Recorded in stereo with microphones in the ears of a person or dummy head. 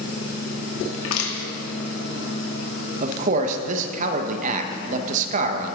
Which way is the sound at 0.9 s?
90° left.